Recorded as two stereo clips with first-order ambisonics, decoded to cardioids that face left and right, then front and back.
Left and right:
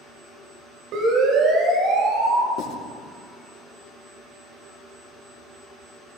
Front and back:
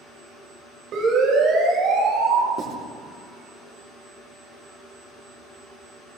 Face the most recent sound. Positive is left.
turn(degrees=125)